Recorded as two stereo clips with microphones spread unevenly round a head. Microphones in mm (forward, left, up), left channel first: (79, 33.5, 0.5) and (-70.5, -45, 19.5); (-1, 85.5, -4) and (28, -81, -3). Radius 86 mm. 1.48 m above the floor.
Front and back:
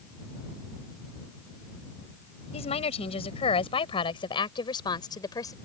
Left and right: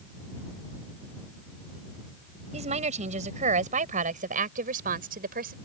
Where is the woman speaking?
30° right; by 5.5 s 45° right.